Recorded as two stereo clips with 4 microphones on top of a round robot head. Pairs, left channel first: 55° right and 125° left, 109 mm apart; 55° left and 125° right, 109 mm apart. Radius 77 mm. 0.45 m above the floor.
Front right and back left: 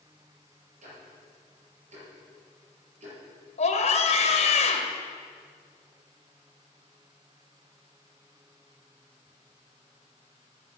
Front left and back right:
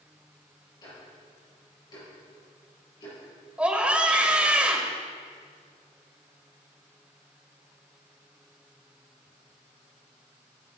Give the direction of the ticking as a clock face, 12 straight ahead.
8 o'clock.